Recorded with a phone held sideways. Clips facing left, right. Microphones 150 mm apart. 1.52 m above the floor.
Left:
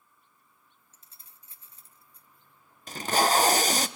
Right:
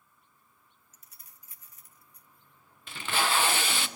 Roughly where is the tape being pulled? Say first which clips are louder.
Left 6 dB; left.